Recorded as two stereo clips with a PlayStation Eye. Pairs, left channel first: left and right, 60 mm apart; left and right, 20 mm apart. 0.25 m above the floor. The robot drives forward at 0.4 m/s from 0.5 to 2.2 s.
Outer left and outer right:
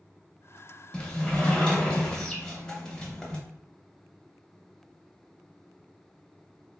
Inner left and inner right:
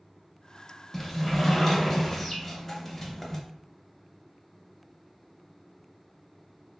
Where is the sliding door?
15° left (ahead or behind), 0.7 m.